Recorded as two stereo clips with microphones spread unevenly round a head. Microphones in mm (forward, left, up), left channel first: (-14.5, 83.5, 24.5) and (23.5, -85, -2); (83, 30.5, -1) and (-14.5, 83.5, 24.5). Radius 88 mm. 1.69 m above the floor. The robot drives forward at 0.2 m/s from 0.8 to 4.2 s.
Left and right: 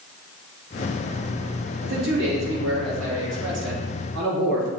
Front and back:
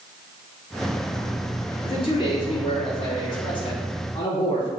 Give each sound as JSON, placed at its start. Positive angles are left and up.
{"t": 1.8, "sound": "a man speaking", "azimuth_deg": -95, "distance_m": 3.0}